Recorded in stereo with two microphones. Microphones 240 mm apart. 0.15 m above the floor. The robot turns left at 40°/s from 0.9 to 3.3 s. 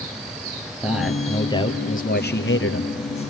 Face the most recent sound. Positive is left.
turn(degrees=90)